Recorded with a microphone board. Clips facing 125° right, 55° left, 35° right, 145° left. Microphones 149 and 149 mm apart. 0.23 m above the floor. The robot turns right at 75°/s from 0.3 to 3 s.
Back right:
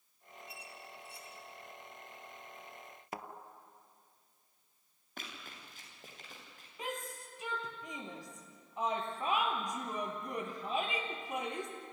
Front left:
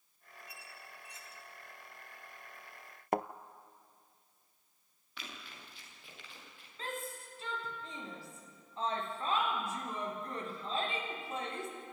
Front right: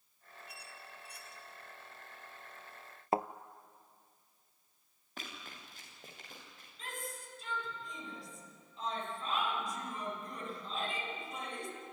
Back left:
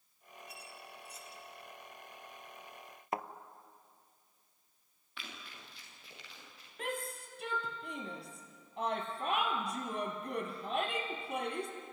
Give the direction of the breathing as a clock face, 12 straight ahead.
No breathing in this recording.